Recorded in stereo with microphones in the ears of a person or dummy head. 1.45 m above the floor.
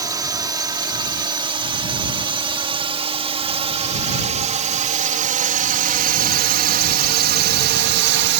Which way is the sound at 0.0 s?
20° right (ahead or behind).